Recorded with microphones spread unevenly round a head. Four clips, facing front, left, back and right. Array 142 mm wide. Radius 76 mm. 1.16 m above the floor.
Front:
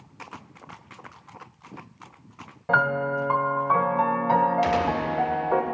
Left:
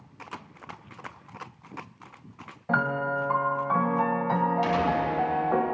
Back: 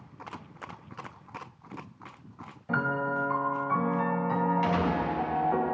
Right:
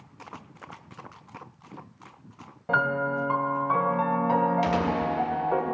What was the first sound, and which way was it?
A piano, 50° right.